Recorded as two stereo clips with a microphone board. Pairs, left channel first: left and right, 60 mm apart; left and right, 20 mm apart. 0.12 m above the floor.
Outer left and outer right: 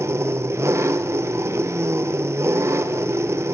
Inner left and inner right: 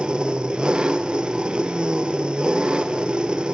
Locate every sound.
0.0 s an engine running: 50° right (ahead or behind), 1.2 m